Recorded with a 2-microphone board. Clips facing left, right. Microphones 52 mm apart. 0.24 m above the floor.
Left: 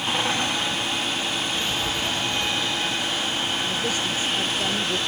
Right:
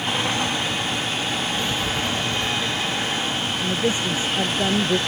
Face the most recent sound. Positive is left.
turn(degrees=-25)  # may be behind; listen again after turning